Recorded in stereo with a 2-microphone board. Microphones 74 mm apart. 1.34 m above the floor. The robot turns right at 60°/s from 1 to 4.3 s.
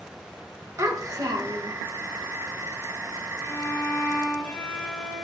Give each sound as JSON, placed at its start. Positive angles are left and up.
{"t": 0.8, "sound": "a child speaking", "azimuth_deg": -130, "distance_m": 0.7}
{"t": 3.4, "sound": "a violin", "azimuth_deg": 105, "distance_m": 1.4}